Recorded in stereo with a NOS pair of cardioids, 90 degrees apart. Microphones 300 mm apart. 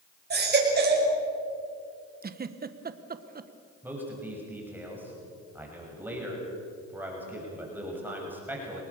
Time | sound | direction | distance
0.3 | a baby crying | 35° right | 6 m
2.2 | a giggle | 30° right | 1.3 m
3.8 | a man speaking | 5° right | 7 m